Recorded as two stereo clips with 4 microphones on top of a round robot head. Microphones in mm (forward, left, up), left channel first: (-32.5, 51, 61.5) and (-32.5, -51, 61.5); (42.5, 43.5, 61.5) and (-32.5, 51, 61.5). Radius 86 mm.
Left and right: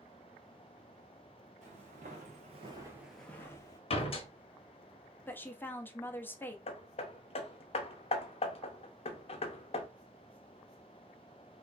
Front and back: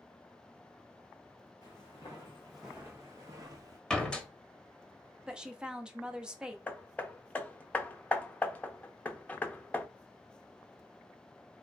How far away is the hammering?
About 0.6 m.